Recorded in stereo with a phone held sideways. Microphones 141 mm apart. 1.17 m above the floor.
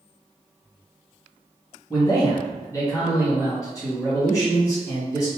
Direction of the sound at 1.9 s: 20° left (ahead or behind).